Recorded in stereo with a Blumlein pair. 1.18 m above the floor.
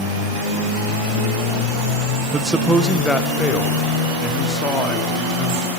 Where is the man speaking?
15° right, 0.5 m; by 5.7 s 20° left, 2.5 m.